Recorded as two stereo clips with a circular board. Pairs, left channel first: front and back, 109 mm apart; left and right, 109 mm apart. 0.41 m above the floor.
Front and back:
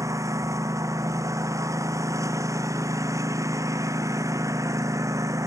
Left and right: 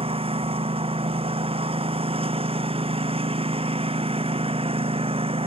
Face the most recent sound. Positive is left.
turn(degrees=-120)